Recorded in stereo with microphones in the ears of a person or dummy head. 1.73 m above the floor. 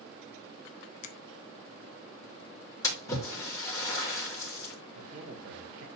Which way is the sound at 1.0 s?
50° left (ahead or behind).